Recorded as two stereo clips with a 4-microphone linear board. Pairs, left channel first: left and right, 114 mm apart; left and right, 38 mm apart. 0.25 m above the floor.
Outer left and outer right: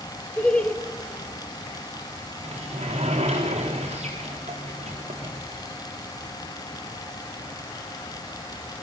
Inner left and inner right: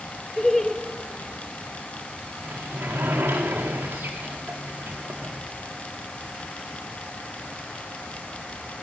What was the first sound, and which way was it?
Laughter, 10° left (ahead or behind).